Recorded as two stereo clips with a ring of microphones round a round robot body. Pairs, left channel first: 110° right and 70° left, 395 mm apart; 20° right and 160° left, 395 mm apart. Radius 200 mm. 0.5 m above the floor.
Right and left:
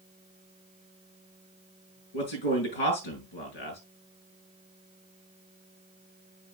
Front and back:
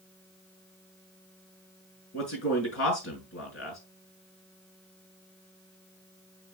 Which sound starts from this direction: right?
A man speaking, at 2.1 s.